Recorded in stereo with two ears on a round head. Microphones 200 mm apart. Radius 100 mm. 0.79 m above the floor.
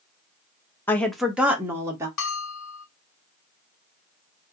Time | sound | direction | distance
0.9 | a woman speaking | 10° left (ahead or behind) | 0.5 m
2.2 | a bell | 85° left | 1.0 m